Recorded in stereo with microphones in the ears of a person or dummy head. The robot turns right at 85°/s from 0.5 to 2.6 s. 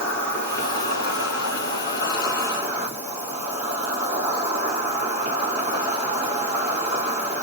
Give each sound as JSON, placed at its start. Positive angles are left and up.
{"t": 0.0, "sound": "an insect", "azimuth_deg": 15, "distance_m": 1.7}